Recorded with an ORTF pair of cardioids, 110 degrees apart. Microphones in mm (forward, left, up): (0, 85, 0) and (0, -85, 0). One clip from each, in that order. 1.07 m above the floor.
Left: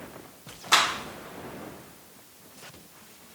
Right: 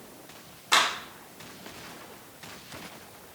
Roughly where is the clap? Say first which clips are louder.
Left 1 dB; ahead.